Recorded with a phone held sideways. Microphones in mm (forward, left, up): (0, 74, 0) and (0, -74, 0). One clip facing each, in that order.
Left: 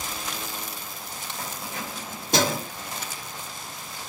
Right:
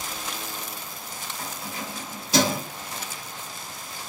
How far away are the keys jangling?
About 2.5 m.